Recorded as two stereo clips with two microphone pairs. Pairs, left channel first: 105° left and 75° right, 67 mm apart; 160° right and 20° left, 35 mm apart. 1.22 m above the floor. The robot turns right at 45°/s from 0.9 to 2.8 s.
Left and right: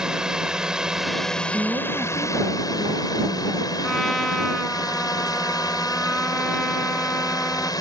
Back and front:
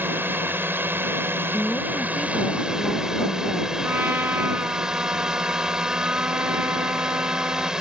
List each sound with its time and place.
0.0 s a drone: 5° left; by 7.8 s 90° left
1.5 s a woman speaking: 130° right; by 3.7 s 70° right
3.8 s a trumpet: 20° left